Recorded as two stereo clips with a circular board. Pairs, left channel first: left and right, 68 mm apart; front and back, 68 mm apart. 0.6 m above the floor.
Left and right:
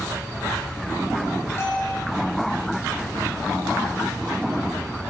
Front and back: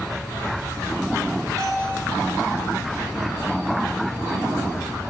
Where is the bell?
145° left, 5.5 m.